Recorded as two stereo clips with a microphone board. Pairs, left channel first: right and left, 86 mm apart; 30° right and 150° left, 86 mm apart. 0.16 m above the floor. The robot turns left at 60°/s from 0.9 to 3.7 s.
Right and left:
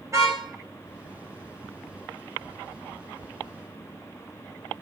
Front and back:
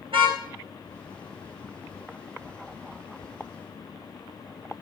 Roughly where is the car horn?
Behind left.